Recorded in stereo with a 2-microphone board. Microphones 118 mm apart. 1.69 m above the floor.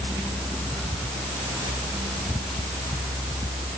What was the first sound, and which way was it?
Only background noise.